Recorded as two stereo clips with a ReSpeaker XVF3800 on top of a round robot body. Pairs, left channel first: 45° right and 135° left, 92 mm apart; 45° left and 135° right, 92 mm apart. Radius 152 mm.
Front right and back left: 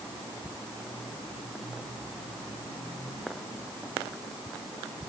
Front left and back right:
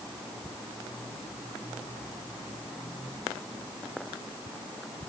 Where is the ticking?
I don't hear ticking.